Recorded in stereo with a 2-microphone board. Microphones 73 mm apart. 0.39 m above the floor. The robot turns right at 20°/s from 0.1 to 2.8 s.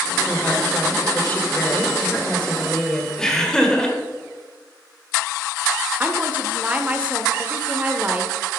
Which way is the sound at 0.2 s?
115° left.